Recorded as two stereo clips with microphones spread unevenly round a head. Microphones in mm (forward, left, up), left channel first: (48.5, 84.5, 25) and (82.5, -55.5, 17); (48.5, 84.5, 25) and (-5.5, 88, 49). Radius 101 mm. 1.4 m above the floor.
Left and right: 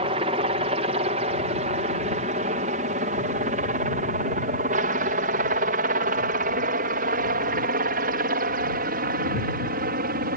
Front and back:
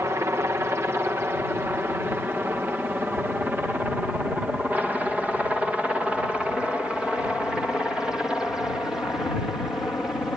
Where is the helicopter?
125° right; by 10.4 s 85° right.